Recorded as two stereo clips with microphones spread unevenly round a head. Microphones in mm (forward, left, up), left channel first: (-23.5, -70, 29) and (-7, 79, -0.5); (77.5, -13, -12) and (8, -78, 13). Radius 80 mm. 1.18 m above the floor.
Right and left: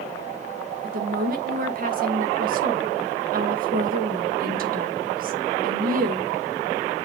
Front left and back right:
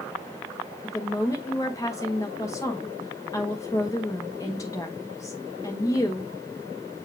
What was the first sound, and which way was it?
A woman speaking, 115° left.